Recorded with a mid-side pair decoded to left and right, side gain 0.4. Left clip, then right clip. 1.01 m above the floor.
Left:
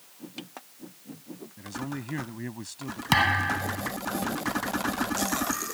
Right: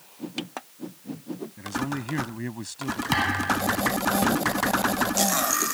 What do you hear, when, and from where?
1.6 s a man speaking: 25° right
3.1 s a thud: 30° left